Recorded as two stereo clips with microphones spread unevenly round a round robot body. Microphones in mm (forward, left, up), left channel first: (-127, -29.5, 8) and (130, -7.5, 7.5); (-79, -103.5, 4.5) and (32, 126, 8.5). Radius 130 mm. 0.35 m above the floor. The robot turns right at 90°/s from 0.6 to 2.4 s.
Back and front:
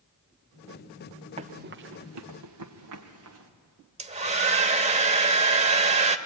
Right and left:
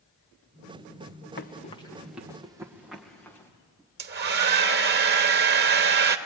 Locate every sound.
1.4 s running footsteps: 60° right, 1.8 m; by 3.5 s 35° right, 3.5 m
4.0 s a hair dryer: 55° left, 1.0 m